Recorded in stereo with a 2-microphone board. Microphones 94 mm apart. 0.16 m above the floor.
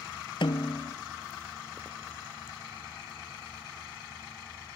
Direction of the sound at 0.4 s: 65° left (ahead or behind).